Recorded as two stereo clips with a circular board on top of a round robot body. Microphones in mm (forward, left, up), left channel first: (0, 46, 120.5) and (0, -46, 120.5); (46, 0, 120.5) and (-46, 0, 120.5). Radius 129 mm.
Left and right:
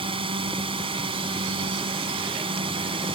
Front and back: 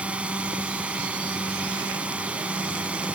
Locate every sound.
0.0 s a drone: 105° right